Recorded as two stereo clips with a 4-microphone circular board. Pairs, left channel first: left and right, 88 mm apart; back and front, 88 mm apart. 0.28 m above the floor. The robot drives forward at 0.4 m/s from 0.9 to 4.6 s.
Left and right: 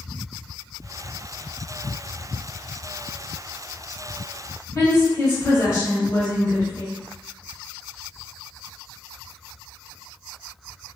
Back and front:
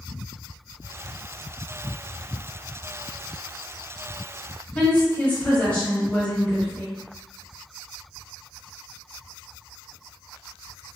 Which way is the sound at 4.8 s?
115° left.